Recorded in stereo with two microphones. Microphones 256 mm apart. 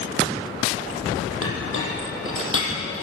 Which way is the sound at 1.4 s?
55° left (ahead or behind).